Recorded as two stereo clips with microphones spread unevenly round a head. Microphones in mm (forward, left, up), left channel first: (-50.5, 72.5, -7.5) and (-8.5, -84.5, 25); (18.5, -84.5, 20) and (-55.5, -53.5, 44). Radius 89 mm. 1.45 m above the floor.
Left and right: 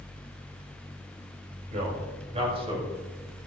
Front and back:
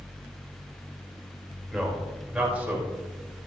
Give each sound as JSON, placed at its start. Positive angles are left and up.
{"t": 1.7, "sound": "a man speaking", "azimuth_deg": -120, "distance_m": 5.5}